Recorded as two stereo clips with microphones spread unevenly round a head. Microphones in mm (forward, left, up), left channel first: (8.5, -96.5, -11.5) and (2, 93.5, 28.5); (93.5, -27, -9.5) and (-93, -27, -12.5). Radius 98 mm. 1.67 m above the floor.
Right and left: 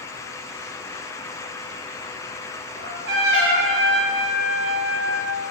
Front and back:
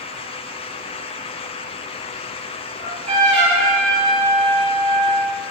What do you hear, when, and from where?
2.8 s a trumpet: 125° left, 7 m